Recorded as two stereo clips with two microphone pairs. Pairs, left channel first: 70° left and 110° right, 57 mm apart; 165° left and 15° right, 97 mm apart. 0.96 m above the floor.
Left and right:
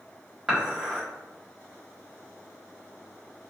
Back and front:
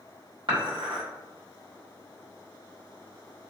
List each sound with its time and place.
0.5 s dishes clattering: 30° right, 1.4 m